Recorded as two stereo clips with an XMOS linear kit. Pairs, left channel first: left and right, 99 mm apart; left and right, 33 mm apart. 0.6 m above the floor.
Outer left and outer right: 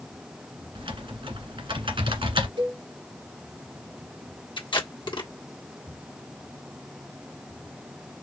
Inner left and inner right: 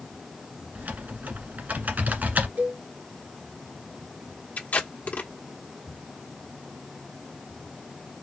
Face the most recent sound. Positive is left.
turn(degrees=55)  # may be behind; listen again after turning